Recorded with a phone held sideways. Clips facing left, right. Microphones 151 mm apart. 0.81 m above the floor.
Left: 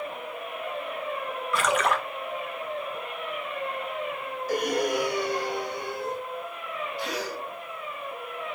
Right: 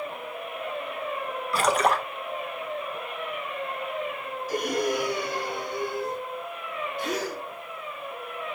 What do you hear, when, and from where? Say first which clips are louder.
1.5 s a splash: right 2 dB; 35° right (ahead or behind), 0.7 m
4.5 s breathing: left 1 dB; 65° left (ahead or behind), 2 m
7.0 s a gasp: right 4 dB; 50° right (ahead or behind), 1.0 m